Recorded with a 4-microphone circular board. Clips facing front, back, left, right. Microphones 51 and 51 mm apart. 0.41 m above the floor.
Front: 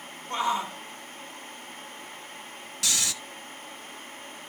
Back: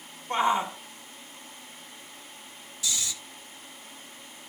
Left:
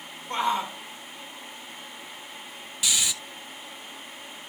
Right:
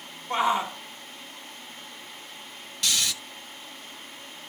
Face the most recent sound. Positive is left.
turn(degrees=10)